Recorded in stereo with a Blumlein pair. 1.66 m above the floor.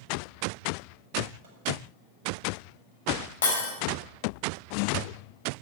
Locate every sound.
1.4 s a microwave: 55° right, 6.5 m
3.4 s breaking glass: 65° left, 4.5 m